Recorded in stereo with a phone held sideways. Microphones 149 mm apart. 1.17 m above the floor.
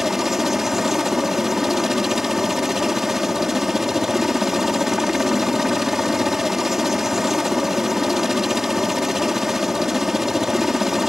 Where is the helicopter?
Centre (ahead or behind).